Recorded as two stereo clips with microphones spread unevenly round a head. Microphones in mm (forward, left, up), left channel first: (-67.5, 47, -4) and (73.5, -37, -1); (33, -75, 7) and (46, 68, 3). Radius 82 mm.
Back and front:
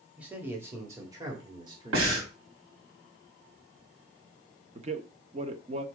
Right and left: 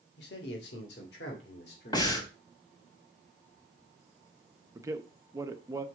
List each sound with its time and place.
0.2 s a man speaking: 115° right, 1.6 m; by 2.9 s 90° right, 3 m
1.9 s breathing: 35° right, 3 m
4.8 s a man speaking: 20° left, 1.0 m